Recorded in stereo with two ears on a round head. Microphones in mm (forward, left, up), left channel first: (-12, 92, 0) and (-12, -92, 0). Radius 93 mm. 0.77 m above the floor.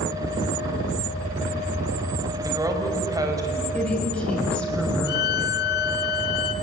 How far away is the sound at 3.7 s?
About 5.5 m.